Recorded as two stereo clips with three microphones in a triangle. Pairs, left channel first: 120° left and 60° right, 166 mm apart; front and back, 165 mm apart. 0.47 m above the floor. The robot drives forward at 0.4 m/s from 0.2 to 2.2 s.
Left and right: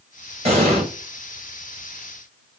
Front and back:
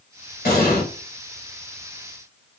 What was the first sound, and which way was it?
An explosion, 15° right.